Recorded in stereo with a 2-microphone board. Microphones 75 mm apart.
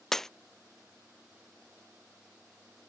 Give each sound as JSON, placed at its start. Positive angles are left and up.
{"t": 0.1, "sound": "breaking glass", "side_deg": 5}